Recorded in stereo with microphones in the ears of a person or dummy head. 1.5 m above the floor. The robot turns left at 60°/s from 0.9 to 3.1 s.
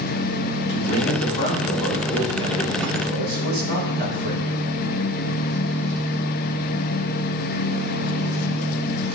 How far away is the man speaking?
About 5.5 m.